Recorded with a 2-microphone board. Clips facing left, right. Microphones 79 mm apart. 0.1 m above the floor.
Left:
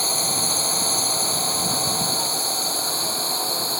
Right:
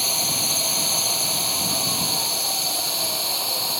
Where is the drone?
35° left (ahead or behind).